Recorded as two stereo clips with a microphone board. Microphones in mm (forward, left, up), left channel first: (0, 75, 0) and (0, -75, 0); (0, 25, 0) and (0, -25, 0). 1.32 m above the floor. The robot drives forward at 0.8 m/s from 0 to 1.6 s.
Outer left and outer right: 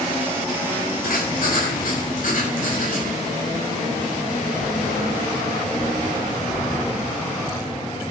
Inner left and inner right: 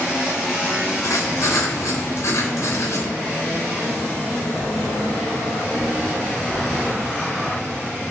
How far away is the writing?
About 3 m.